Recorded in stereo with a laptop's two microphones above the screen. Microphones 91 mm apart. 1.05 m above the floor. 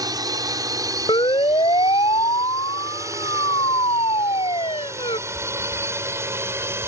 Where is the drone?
45° right (ahead or behind); by 6.9 s 30° right (ahead or behind).